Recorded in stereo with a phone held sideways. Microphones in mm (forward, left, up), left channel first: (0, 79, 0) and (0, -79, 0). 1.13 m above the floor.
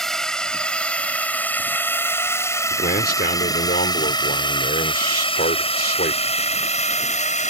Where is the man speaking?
75° left (ahead or behind).